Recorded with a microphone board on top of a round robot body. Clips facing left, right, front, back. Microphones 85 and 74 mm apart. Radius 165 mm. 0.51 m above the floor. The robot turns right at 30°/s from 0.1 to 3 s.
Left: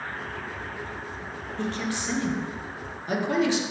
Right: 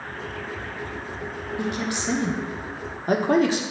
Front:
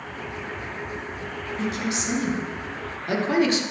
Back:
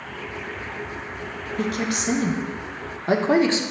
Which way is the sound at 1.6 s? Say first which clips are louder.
Right 2 dB, back 3 dB; 170° right.